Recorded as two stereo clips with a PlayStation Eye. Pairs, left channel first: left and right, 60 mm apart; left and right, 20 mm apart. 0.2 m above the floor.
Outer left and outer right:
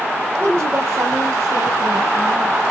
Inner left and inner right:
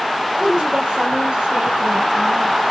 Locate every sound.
0.4 s a woman speaking: 45° right (ahead or behind), 4 m